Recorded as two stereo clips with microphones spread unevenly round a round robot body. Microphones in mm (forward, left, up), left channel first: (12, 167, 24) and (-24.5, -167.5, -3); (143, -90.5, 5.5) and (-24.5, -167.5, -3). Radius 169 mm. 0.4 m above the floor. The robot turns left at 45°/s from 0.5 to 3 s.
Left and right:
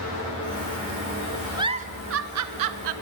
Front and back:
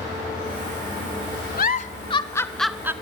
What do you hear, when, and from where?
1.6 s a giggle: 15° right, 1.0 m; by 2.9 s 75° right, 1.0 m